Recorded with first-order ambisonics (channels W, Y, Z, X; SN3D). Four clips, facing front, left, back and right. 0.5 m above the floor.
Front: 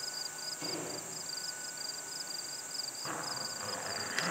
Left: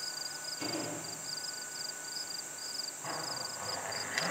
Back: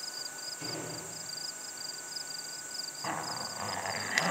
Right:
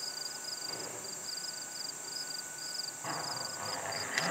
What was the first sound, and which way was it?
A door slam, 110° left.